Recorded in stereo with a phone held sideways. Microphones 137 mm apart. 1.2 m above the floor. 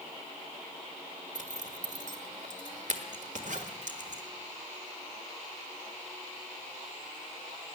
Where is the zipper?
60° right (ahead or behind), 1.5 m.